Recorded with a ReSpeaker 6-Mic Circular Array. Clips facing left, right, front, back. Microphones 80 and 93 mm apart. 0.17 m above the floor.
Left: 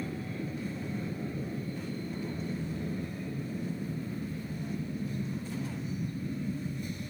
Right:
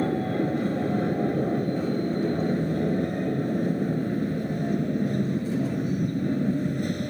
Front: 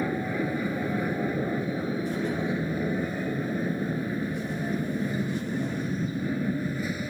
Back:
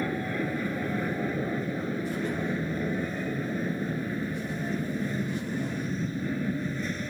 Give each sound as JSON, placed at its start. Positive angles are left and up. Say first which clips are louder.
{"t": 0.0, "sound": "an aircraft", "louder": "right 12 dB, front 2 dB", "azimuth_deg": -85}